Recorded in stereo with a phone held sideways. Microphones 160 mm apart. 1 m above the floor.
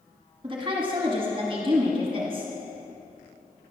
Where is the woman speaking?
35° right (ahead or behind), 1.2 m.